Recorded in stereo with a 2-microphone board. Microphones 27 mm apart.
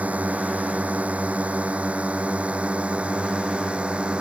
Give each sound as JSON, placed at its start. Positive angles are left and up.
{"t": 0.0, "sound": "a drone", "side_deg": -60}